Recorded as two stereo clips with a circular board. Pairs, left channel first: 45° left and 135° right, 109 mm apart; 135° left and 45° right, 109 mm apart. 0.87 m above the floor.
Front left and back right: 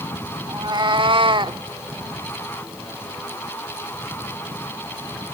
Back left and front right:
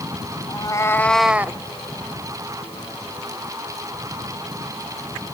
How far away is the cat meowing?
About 1.3 m.